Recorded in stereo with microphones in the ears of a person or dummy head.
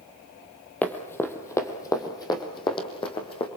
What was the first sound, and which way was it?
Running footsteps, 5° left (ahead or behind).